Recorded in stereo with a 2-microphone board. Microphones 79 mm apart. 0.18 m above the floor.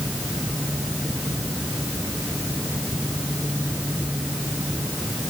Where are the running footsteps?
No running footsteps in this recording.